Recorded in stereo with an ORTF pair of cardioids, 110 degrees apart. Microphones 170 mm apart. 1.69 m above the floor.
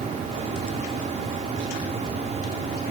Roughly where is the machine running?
Ahead right.